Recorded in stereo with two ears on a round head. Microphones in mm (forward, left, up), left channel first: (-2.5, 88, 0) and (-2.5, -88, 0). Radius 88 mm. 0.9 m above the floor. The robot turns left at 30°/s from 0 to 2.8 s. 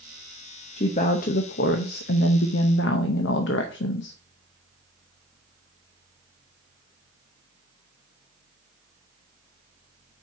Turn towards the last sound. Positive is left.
turn(degrees=80)